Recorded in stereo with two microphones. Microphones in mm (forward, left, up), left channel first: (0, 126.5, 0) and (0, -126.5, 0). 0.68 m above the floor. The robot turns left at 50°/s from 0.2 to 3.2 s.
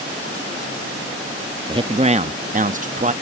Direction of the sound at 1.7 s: 40° right.